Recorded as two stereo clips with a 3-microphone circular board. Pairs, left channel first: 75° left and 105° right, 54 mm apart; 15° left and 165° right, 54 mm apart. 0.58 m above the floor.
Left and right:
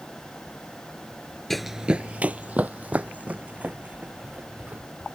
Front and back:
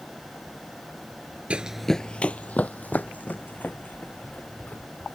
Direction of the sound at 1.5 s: 155° left.